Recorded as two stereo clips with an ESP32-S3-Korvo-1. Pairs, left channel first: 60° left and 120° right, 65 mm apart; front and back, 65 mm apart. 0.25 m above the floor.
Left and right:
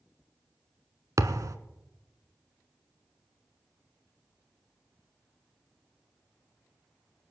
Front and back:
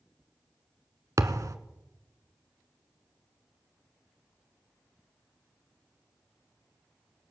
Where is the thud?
150° right, 1.0 m.